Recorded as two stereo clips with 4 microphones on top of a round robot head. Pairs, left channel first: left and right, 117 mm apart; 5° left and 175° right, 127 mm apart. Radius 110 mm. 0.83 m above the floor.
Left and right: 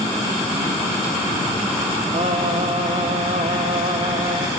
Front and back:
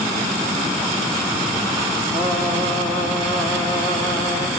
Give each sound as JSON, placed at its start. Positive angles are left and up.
{"t": 2.1, "sound": "singing", "azimuth_deg": -65, "distance_m": 2.5}